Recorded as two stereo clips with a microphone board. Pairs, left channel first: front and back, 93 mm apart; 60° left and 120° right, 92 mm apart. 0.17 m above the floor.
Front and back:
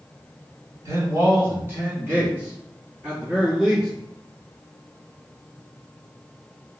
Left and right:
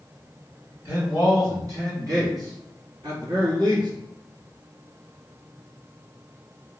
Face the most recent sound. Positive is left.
turn(degrees=-100)